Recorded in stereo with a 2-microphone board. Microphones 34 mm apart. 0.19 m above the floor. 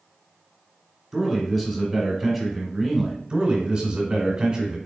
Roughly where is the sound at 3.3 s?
Right.